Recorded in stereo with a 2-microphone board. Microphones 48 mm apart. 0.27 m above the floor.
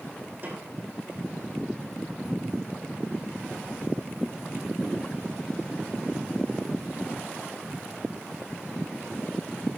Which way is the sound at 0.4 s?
45° right (ahead or behind).